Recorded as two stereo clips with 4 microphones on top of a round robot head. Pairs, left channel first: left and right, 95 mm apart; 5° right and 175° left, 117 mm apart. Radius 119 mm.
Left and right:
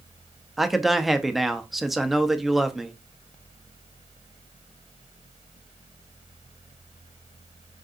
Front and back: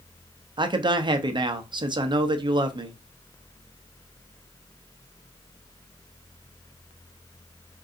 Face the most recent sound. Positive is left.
turn(degrees=-175)